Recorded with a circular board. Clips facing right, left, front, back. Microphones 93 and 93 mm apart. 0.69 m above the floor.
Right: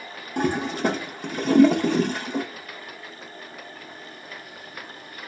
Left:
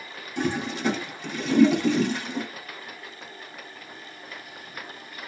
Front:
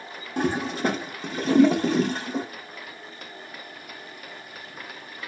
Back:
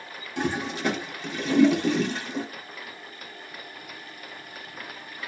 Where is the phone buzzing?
I don't hear a phone buzzing.